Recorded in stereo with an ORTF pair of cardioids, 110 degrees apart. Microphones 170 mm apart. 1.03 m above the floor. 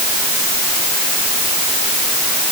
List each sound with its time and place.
Only background noise.